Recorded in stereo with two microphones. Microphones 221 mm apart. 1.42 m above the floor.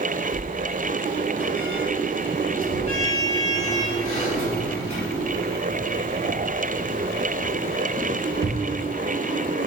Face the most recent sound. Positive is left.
turn(degrees=-45)  # may be behind; listen again after turning